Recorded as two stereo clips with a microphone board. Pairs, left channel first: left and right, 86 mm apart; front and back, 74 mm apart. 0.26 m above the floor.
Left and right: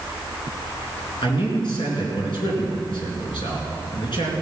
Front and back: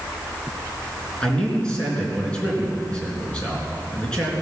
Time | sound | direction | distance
1.2 | a man speaking | 75° left | 4 m